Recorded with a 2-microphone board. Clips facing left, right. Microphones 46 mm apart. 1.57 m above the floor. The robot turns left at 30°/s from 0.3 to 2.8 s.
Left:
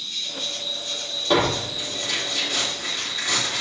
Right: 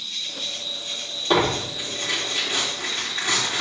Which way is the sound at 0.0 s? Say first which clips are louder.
Left 1 dB; 5° right.